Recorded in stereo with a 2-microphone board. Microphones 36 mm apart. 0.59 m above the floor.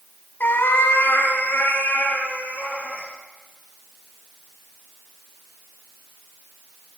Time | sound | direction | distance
0.4 | a cat meowing | 60° left (ahead or behind) | 1.0 m